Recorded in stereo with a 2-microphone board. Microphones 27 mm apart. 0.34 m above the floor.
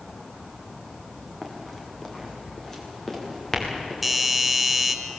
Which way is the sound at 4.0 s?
5° right (ahead or behind).